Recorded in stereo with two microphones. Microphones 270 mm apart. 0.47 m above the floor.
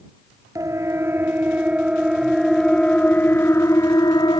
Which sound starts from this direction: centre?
A siren, at 0.6 s.